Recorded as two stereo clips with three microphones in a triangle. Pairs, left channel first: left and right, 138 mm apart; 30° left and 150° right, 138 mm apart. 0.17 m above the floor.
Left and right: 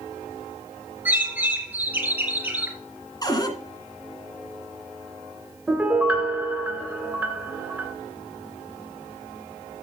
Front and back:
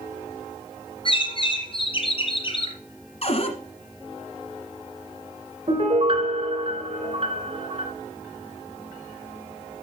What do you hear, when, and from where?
1.1 s a bird: 15° right, 3 m
3.2 s a cupboard door: 40° left, 1.8 m
5.7 s a piano: 165° right, 2.5 m